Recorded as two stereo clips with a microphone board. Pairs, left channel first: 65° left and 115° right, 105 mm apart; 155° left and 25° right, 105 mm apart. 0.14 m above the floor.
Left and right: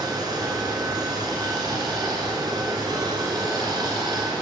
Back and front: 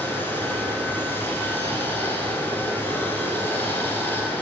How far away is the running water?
About 1.8 m.